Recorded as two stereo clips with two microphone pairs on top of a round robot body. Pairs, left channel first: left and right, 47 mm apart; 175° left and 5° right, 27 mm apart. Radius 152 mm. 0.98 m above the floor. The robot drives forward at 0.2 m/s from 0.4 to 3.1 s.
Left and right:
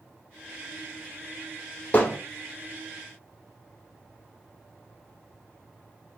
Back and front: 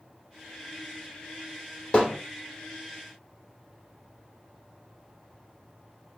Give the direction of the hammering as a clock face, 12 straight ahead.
8 o'clock.